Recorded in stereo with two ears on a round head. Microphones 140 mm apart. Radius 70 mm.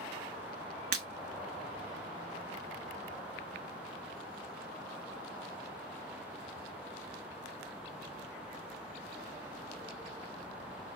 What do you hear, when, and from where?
0.9 s breaking glass: 60° right (ahead or behind), 1.6 m